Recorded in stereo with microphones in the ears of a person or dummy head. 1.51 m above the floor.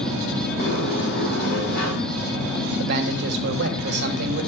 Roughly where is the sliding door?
Left.